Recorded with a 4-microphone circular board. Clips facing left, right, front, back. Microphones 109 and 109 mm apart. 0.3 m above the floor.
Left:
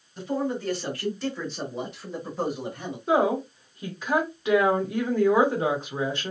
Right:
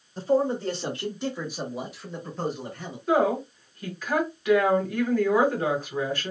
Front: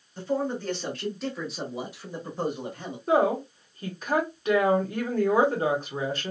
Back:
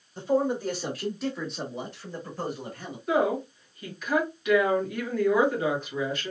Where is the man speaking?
115° right, 1.4 m; by 3.0 s 35° left, 1.3 m.